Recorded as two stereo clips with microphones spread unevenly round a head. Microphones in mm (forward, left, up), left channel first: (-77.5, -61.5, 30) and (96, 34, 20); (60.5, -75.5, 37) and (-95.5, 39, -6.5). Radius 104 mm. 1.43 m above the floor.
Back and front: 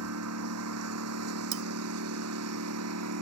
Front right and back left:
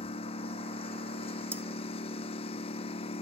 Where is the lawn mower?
30° left.